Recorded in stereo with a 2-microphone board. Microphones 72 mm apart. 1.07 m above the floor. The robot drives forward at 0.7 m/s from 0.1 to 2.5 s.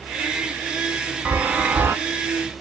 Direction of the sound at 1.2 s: 20° right (ahead or behind).